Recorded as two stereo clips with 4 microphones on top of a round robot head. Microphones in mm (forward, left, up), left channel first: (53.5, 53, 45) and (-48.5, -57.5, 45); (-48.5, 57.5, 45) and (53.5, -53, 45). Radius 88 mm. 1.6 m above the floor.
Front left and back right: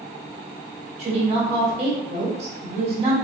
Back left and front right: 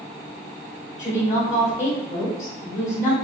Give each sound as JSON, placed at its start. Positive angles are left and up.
{"t": 1.0, "sound": "a woman speaking", "azimuth_deg": 180, "distance_m": 1.2}